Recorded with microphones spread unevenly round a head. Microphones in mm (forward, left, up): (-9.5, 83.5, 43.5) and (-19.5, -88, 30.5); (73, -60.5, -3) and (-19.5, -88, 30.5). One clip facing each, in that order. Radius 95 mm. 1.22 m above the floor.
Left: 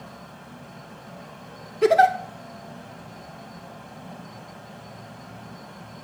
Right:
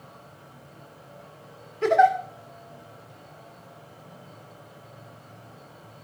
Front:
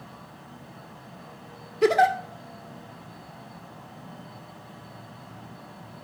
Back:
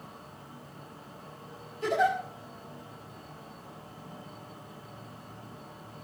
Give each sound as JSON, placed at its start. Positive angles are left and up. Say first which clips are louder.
{"t": 0.0, "sound": "a fan", "louder": "left 6 dB, front 2 dB", "azimuth_deg": 70, "distance_m": 2.5}
{"t": 1.8, "sound": "a giggle", "louder": "left 2 dB, front 7 dB", "azimuth_deg": 30, "distance_m": 2.5}